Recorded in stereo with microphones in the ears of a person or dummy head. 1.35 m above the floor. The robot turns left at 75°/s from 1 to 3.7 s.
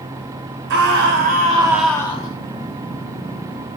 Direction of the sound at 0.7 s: 115° right.